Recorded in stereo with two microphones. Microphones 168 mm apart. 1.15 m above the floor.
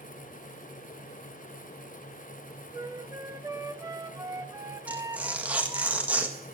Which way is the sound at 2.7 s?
20° right (ahead or behind).